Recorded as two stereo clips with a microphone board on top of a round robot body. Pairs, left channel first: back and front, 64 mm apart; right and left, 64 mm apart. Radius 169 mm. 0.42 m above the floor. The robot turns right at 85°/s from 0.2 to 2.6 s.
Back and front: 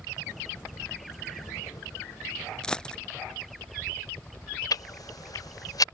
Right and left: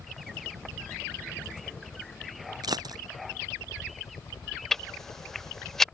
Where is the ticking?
175° right.